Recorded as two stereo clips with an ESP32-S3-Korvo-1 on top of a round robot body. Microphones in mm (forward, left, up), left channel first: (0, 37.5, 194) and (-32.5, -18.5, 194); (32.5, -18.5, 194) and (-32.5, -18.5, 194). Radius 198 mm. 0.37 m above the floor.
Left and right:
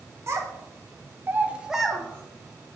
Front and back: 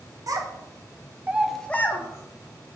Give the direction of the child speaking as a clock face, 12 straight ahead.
5 o'clock.